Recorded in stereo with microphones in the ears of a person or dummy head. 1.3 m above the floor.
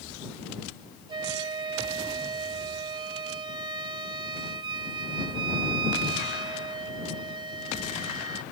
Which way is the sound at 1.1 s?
30° right (ahead or behind).